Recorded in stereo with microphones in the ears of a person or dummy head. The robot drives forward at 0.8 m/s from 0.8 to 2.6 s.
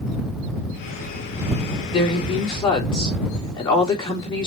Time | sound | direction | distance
1.9 | a woman speaking | 30° left (ahead or behind) | 3.5 m